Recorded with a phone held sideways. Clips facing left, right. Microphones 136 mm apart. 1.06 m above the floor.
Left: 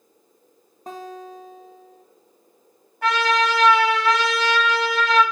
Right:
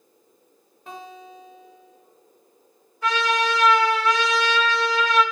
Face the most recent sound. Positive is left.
turn(degrees=70)  # may be behind; listen again after turning